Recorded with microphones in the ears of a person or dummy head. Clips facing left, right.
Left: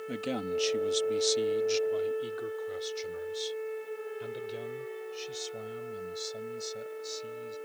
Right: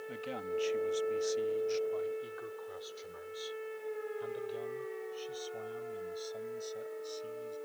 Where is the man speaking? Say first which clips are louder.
Left 6 dB; 60° left (ahead or behind); by 7.5 s 25° left (ahead or behind).